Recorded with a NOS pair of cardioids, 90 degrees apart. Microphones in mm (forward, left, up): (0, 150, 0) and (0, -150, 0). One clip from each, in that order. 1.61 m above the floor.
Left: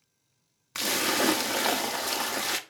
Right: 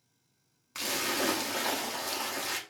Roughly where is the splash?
Ahead left.